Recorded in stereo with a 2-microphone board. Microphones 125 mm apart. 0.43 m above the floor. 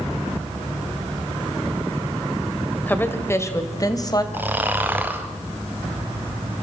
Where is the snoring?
15° right (ahead or behind), 2 m.